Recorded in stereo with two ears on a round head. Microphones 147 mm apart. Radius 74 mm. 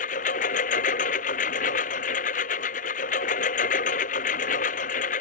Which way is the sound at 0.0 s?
50° left (ahead or behind).